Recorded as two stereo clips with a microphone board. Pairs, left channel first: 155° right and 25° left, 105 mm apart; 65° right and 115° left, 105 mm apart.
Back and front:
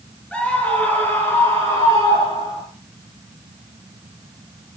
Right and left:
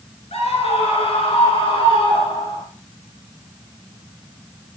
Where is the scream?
80° right, 6 m; by 2.6 s 105° right, 6.5 m.